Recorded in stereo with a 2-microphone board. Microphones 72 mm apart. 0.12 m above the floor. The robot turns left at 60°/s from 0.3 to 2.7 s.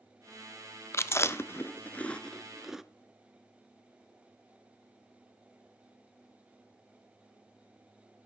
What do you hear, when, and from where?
0.9 s chewing: 40° left (ahead or behind), 0.5 m; by 2.8 s 5° right (ahead or behind), 0.5 m